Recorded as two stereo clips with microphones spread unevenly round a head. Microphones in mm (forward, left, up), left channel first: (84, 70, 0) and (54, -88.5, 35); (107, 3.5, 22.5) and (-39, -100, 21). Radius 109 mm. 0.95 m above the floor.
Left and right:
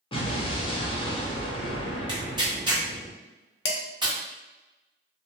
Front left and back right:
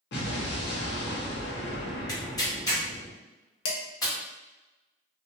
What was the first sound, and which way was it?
An explosion, 35° left.